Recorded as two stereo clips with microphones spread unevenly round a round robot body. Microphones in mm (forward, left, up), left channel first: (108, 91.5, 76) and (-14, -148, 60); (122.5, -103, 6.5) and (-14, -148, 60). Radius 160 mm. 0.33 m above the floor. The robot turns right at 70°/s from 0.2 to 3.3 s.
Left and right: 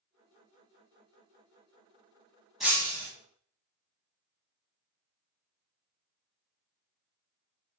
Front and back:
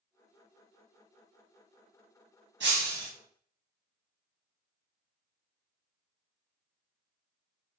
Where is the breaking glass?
155° left, 0.5 m; by 3.1 s 170° right, 0.5 m.